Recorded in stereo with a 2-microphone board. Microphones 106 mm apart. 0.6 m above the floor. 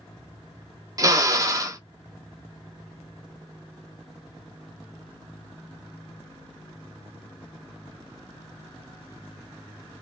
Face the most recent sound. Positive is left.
turn(degrees=-30)  # may be behind; listen again after turning